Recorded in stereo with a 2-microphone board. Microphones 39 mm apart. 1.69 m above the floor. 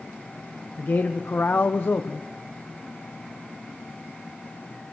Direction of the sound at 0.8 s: 60° left (ahead or behind).